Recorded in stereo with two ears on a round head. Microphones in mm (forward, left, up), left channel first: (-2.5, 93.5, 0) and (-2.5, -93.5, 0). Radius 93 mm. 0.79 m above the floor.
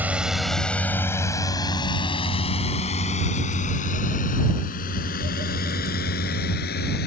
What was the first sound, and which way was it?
A drone, 10° right (ahead or behind).